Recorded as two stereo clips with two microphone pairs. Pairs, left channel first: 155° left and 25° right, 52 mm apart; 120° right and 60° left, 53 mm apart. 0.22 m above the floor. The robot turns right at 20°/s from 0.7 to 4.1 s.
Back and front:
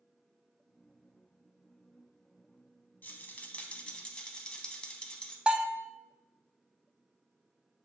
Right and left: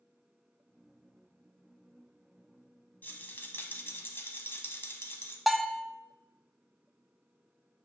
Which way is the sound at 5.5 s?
25° right.